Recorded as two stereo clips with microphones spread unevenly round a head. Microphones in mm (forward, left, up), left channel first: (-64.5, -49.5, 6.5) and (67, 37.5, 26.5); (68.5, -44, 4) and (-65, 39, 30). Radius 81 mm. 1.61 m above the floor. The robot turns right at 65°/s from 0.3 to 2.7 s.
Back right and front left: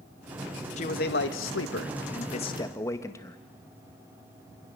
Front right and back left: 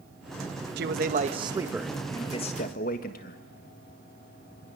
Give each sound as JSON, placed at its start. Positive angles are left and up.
{"t": 0.8, "sound": "a man speaking", "azimuth_deg": 160, "distance_m": 1.6}